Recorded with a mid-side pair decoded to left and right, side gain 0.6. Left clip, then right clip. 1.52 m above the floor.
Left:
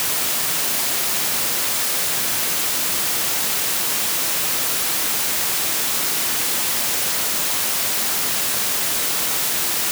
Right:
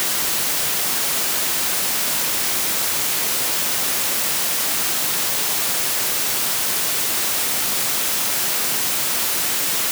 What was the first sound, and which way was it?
Only background noise.